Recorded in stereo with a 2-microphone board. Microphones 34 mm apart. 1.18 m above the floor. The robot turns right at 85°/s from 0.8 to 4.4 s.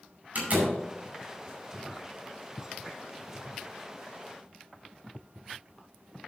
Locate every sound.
0.3 s a door slam: 50° right (ahead or behind), 4.5 m